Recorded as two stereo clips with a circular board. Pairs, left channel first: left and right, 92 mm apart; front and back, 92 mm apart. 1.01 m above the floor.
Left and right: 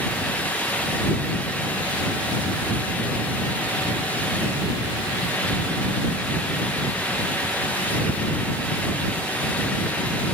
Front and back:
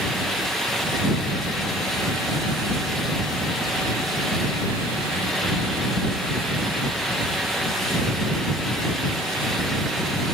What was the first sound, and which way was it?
Only background noise.